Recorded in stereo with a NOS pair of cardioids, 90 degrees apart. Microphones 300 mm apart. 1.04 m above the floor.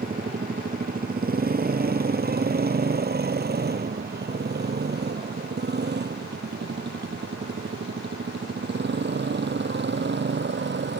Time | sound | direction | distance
0.0 | a motorcycle | 30° right | ?